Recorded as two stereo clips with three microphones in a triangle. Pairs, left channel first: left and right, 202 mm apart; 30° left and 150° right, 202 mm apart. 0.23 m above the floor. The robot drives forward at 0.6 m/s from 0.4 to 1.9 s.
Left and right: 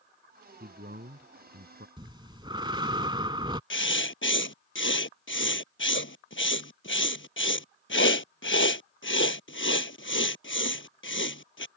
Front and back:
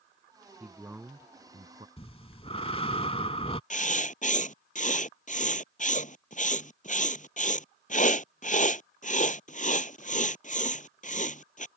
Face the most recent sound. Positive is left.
turn(degrees=80)